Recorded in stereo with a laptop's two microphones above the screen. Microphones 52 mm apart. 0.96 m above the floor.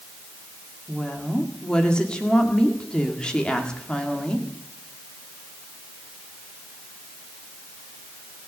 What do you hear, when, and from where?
0.9 s a woman speaking: 20° left (ahead or behind), 1.9 m